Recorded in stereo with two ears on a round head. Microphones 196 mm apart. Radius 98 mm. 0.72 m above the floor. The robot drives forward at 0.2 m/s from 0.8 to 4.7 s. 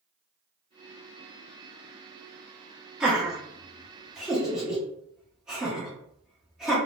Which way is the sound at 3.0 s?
5° right (ahead or behind).